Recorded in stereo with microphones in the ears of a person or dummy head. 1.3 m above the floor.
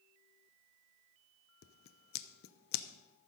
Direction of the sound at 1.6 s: 55° left (ahead or behind).